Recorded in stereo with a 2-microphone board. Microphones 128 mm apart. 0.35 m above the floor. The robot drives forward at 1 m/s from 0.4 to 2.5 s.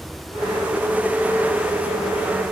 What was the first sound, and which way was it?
Only background noise.